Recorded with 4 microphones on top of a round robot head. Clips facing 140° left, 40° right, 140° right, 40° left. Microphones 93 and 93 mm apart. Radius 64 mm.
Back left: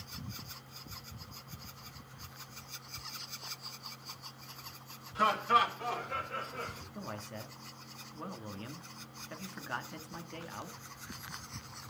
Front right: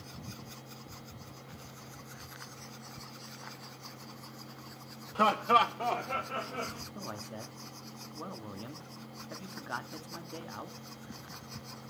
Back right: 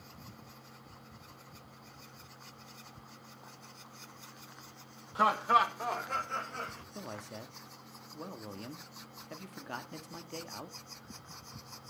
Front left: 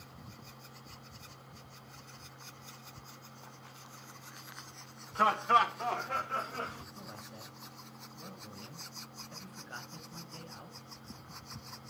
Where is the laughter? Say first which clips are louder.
Front right 3 dB, even; 65° right, 1.9 m; by 6.8 s 35° right, 1.9 m.